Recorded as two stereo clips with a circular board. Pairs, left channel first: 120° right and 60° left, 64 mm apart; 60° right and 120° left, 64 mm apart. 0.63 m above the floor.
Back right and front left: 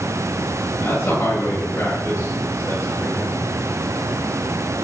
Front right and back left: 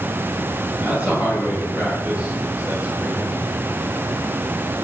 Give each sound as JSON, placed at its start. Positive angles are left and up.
{"t": 0.8, "sound": "a man speaking", "azimuth_deg": -175, "distance_m": 9.5}